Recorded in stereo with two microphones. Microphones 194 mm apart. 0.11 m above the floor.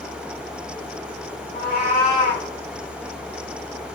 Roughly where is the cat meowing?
Right.